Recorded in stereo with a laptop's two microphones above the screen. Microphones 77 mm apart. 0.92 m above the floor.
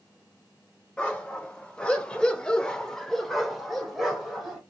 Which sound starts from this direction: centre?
A dog barking, at 1.0 s.